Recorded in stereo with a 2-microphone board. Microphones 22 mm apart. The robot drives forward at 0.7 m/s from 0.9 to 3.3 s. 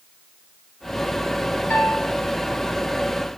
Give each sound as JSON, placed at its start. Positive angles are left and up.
{"t": 1.7, "sound": "a piano", "side_deg": 80, "distance_m": 4.5}